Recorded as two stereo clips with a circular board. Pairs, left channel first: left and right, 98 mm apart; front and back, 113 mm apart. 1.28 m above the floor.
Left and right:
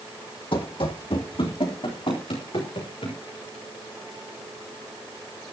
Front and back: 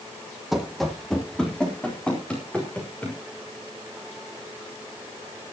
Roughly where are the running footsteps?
Left.